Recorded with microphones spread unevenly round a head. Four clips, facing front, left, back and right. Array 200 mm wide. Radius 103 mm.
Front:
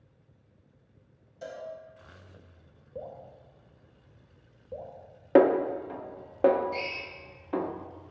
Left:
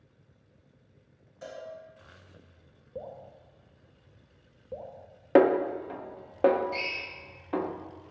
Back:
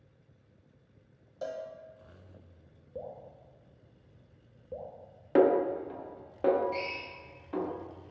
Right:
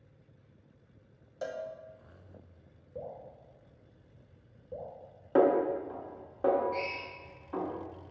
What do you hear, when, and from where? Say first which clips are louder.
1.4 s a cowbell: right 5 dB, back 3 dB; 110° right, 0.8 m
3.0 s dripping: left 1 dB, front 1 dB; 160° left, 1.1 m
5.3 s a snare drum: left 3 dB, front 3 dB; 115° left, 0.5 m
6.7 s a drill: right 1 dB, front 1 dB; 145° left, 2.0 m